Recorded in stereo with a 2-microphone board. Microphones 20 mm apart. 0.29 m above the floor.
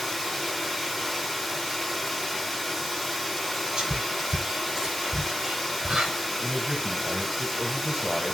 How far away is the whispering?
About 4 m.